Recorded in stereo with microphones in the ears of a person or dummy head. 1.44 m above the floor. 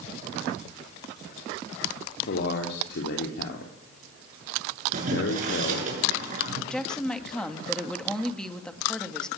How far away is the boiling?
About 8.5 m.